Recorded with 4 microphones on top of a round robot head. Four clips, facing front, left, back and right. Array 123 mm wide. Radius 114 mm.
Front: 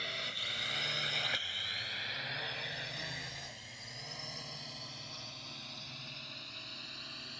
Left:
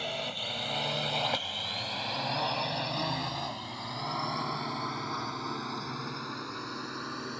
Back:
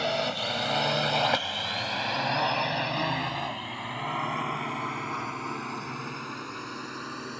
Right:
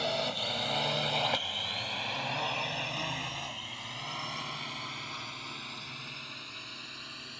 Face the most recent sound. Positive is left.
turn(degrees=140)